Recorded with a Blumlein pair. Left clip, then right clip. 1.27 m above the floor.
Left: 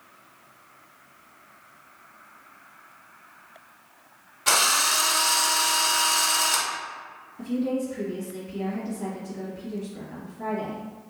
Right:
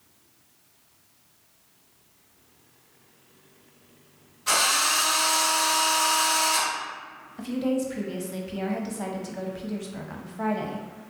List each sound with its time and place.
4.5 s a drill: 35° left, 1.1 m
7.4 s a woman speaking: 35° right, 0.8 m